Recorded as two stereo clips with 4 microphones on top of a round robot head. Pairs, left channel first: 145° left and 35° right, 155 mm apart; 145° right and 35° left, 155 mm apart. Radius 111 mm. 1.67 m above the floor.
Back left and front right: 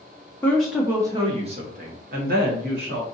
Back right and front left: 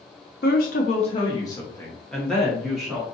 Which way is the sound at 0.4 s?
135° right.